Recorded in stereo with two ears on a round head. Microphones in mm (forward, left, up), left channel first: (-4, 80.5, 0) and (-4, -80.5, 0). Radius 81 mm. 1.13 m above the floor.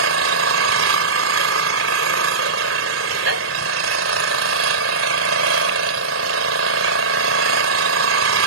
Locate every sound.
0.0 s an engine running: 90° right